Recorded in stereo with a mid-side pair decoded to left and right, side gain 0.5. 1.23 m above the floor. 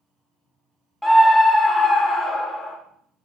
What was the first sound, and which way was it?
A scream, 10° left.